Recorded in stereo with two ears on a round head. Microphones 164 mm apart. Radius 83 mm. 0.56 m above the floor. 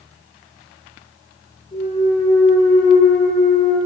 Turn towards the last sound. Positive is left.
turn(degrees=40)  # may be behind; listen again after turning